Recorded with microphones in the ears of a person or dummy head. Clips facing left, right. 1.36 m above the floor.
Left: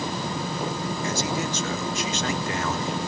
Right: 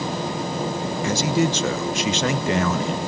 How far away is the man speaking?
About 1.0 m.